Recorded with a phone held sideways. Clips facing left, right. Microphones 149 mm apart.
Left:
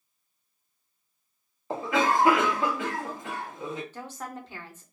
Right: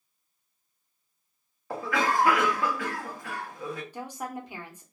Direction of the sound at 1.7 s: 20° left (ahead or behind).